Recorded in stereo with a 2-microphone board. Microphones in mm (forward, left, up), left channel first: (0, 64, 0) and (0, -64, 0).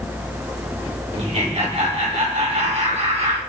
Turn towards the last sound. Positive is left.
turn(degrees=-55)  # may be behind; listen again after turning